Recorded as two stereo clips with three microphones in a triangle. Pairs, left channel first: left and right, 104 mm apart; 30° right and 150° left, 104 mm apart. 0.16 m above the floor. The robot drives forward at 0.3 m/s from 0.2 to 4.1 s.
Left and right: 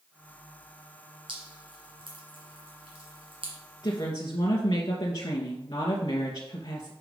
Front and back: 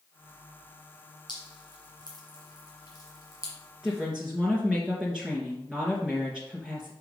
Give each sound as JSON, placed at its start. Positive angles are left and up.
{"t": 1.3, "sound": "dripping", "azimuth_deg": -65, "distance_m": 3.0}
{"t": 3.8, "sound": "a woman speaking", "azimuth_deg": 65, "distance_m": 2.0}